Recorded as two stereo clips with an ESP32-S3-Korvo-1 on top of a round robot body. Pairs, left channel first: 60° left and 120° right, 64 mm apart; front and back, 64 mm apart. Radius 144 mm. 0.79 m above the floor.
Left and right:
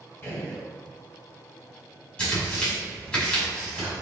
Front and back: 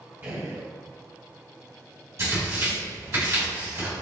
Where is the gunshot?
120° left, 1.4 m.